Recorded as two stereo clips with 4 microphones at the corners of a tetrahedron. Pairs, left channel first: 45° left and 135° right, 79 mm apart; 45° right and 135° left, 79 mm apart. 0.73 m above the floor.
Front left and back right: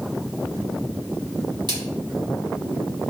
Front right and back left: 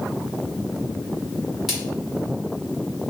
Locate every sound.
1.7 s a splash: 140° right, 1.8 m